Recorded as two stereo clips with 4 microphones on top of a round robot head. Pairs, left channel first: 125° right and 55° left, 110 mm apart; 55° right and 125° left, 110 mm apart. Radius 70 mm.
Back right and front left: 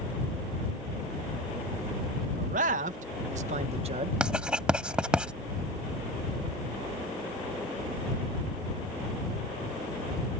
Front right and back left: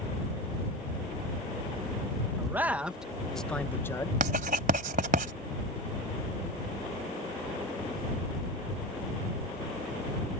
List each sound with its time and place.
2.4 s a man speaking: 55° left; by 4.1 s 10° left
4.2 s writing: 135° left